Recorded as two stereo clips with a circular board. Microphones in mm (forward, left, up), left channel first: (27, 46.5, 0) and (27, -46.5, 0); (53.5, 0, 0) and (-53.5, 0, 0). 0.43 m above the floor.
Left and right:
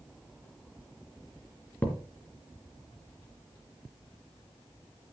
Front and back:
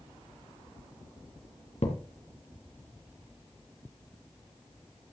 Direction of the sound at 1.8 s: 20° left.